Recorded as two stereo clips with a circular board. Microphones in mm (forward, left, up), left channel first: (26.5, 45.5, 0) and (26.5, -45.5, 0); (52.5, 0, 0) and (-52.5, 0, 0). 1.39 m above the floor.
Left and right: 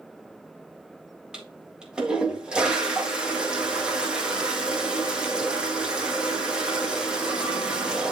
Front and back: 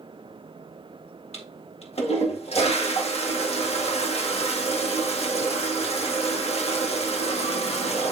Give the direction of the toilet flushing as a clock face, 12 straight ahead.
12 o'clock.